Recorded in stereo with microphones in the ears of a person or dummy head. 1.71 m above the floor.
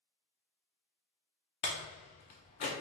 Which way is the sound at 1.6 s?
35° left (ahead or behind).